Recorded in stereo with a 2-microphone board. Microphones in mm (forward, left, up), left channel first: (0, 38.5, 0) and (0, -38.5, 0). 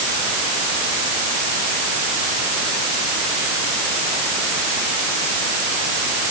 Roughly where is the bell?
No bell in this recording.